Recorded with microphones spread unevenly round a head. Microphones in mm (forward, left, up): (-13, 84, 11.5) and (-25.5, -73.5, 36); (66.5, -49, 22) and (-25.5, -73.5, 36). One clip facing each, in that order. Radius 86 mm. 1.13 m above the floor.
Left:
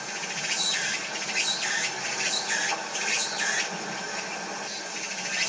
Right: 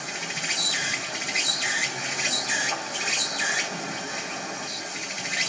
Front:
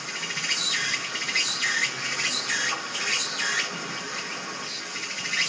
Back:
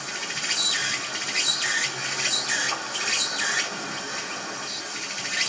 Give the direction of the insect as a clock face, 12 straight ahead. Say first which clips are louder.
Right 1 dB, back 1 dB; 5 o'clock.